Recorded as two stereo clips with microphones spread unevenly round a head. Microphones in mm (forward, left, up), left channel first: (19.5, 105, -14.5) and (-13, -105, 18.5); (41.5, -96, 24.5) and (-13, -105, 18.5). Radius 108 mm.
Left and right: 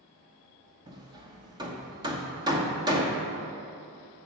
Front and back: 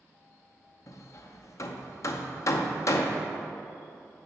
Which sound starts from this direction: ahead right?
Hammering, at 0.9 s.